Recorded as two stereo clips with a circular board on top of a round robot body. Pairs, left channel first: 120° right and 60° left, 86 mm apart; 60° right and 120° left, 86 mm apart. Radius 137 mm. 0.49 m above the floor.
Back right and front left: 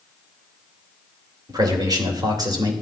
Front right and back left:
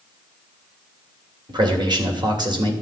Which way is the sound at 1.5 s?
95° left.